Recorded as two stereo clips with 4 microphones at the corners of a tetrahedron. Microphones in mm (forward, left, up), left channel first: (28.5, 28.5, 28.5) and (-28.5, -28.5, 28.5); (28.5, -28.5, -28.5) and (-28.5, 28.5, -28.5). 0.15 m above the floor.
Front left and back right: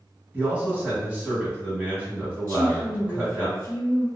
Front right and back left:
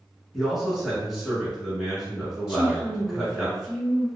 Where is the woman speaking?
65° left, 1.1 m.